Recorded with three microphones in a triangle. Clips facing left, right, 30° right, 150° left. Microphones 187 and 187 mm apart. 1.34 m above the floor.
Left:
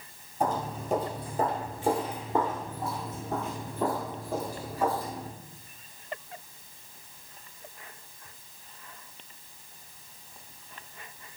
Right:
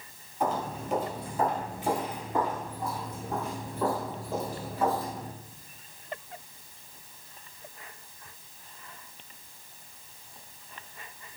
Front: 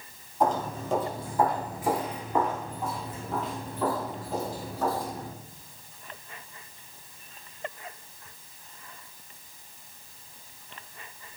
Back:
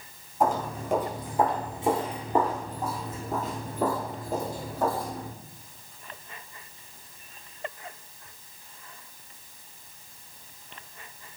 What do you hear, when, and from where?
0.4 s footsteps: 70° left, 1.7 m; by 5.3 s 170° left, 2.5 m